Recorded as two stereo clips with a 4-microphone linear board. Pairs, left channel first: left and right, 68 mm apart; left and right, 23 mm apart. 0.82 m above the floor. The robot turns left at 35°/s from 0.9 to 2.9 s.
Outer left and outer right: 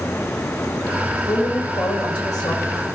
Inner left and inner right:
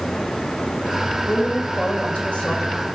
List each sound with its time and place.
1.3 s a woman speaking: 115° left, 3 m; by 2.8 s 60° left, 3 m